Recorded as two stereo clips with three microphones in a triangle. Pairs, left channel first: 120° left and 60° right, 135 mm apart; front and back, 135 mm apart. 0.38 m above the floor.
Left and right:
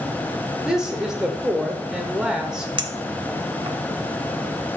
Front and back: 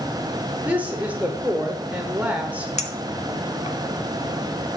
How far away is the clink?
About 0.7 m.